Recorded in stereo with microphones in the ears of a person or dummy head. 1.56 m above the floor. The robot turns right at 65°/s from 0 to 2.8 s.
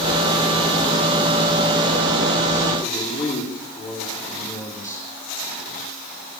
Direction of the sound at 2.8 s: 10° left (ahead or behind).